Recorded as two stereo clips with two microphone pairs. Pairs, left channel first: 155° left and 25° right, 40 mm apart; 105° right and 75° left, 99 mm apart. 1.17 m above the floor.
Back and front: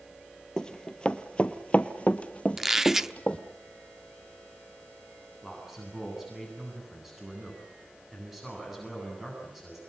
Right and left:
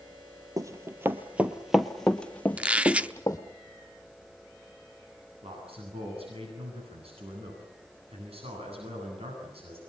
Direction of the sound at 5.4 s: 55° left.